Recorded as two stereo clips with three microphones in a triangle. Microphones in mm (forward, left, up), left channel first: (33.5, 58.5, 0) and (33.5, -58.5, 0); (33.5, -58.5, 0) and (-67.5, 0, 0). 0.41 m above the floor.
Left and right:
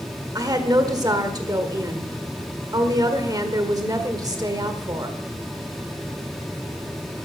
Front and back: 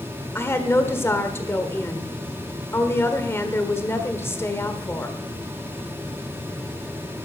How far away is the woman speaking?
About 1.4 m.